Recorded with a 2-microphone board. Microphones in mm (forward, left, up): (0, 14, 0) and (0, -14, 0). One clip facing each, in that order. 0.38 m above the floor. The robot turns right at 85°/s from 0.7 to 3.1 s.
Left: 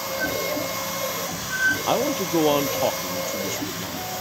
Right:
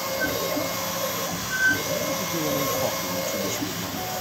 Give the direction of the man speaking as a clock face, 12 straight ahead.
10 o'clock.